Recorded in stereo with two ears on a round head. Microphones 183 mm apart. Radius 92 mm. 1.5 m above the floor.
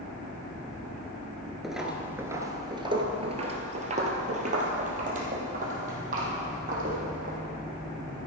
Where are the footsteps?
Centre (ahead or behind), 1.5 m; by 7.4 s 40° right (ahead or behind), 4.5 m.